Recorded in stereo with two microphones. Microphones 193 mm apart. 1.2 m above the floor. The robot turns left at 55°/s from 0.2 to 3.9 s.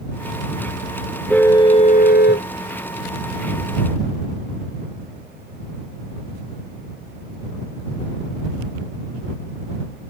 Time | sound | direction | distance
1.3 | a car horn | 175° left | ?